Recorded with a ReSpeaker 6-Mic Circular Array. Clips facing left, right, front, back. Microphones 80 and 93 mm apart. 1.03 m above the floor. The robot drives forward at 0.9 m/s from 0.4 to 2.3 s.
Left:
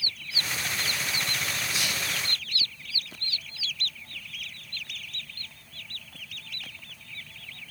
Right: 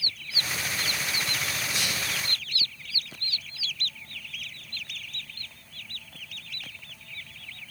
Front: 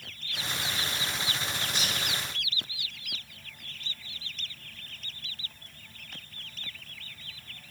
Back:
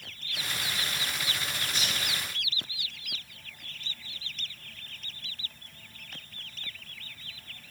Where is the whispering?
45° right, 5 m; by 2.0 s 50° right, 4.5 m.